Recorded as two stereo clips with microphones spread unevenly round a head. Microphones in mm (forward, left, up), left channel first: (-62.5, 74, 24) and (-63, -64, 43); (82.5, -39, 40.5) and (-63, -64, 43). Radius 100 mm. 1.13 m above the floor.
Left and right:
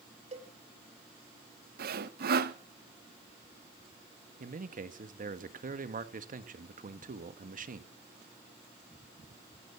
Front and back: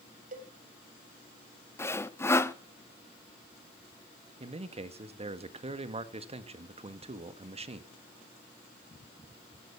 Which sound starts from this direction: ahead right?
Sawing, at 1.8 s.